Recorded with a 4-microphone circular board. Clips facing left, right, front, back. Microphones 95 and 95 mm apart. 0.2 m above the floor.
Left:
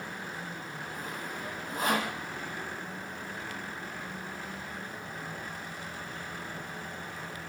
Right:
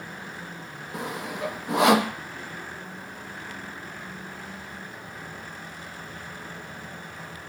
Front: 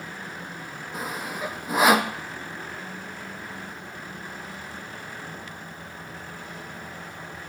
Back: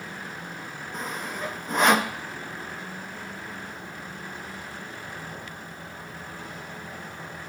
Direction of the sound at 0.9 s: 85° right.